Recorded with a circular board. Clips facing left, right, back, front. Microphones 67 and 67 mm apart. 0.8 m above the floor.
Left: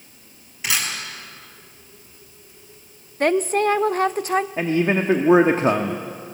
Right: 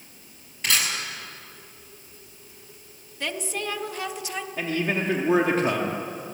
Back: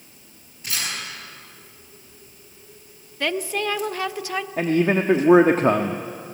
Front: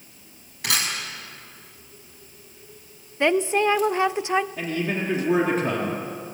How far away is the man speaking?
About 1.2 m.